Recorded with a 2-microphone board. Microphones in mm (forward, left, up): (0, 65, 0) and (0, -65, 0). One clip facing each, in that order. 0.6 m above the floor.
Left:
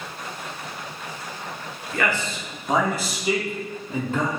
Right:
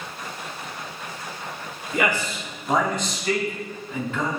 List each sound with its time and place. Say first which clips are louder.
1.9 s a man speaking: right 1 dB; 20° right (ahead or behind), 1.8 m; by 4.3 s 45° left (ahead or behind), 1.6 m